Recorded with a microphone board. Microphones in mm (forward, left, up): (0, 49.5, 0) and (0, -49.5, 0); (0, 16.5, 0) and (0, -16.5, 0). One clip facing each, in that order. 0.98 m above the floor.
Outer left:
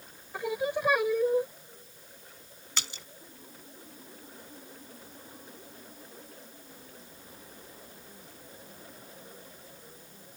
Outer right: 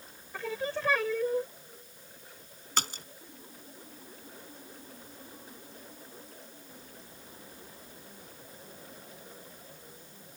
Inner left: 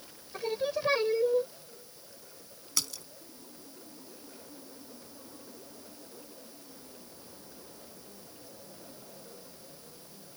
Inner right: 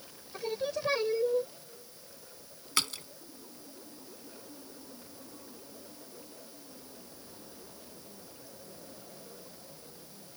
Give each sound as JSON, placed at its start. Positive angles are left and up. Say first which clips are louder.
{"t": 0.3, "sound": "singing", "louder": "outer left 4 dB, inner left 2 dB", "side_deg": 15}
{"t": 2.8, "sound": "a splash", "louder": "outer right 7 dB, inner right 4 dB", "side_deg": -45}